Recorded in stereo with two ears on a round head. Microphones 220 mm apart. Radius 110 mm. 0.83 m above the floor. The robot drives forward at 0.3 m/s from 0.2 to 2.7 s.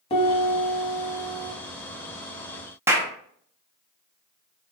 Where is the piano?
25° left (ahead or behind), 0.8 m.